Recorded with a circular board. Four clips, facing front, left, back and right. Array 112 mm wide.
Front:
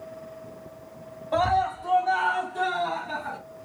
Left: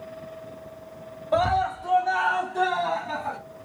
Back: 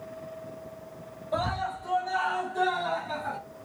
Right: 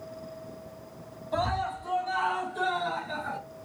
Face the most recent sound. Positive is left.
turn(degrees=90)